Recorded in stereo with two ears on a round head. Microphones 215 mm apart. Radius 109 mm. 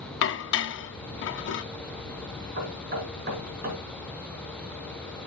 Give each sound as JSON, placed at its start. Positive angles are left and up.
{"t": 0.2, "sound": "dishes clattering", "side_deg": 50, "distance_m": 0.6}
{"t": 2.6, "sound": "knocking", "side_deg": -35, "distance_m": 5.0}